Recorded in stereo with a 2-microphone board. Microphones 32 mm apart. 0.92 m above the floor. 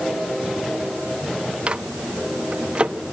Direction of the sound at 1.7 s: 35° right (ahead or behind).